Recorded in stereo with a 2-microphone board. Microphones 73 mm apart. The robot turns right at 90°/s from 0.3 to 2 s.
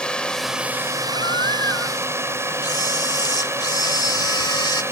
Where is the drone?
170° left; by 4.9 s 40° right.